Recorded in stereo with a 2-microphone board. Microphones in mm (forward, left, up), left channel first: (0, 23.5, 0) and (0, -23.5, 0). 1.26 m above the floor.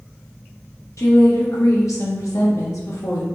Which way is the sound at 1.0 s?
80° left.